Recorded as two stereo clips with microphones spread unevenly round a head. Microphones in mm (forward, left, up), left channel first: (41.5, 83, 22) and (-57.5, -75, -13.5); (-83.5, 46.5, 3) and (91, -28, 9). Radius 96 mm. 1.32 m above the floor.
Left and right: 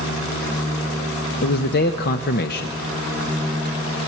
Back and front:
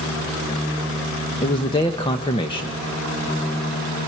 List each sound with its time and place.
1.4 s a man speaking: 90° left, 1.0 m